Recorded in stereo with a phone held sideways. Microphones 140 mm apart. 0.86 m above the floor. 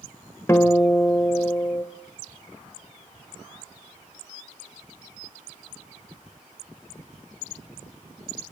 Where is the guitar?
15° left (ahead or behind), 2.5 m.